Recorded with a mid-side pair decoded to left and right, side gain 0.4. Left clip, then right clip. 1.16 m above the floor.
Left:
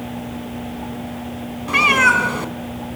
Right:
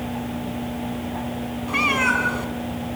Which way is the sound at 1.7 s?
60° left.